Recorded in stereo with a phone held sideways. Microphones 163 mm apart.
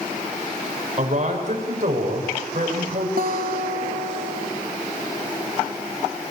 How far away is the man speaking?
About 7 m.